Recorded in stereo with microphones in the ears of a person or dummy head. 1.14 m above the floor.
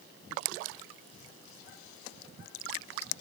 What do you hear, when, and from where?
Only background noise.